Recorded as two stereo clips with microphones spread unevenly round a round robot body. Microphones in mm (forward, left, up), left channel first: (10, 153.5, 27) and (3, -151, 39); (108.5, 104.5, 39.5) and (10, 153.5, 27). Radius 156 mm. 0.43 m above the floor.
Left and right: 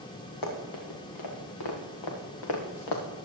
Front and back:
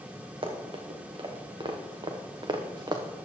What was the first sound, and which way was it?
Running footsteps, 115° left.